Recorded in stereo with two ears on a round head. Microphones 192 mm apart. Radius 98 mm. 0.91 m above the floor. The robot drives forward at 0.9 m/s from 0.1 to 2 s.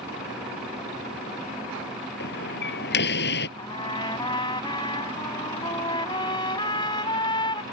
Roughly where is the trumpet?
Left.